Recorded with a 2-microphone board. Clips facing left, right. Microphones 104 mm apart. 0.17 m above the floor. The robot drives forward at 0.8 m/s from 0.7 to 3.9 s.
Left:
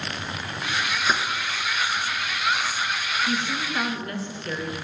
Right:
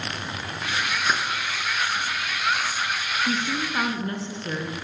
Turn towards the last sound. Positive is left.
turn(degrees=-25)  # may be behind; listen again after turning